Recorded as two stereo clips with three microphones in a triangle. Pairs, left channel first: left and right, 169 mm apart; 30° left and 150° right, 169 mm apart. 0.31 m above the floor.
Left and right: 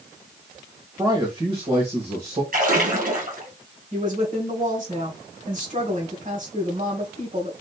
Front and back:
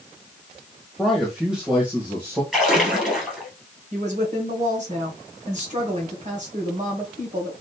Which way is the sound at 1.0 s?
55° right.